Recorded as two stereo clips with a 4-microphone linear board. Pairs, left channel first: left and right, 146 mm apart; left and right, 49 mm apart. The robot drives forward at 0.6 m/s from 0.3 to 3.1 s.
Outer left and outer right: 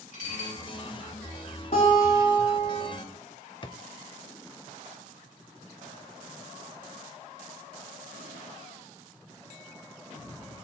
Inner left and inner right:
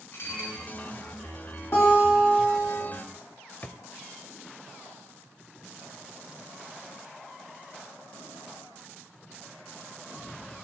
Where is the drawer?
35° left (ahead or behind), 0.6 m.